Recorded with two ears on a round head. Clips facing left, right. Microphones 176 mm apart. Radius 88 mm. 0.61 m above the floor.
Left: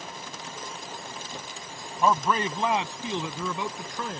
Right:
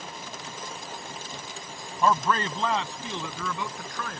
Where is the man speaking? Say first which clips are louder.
Even; 10° left (ahead or behind); by 4.2 s 20° left (ahead or behind).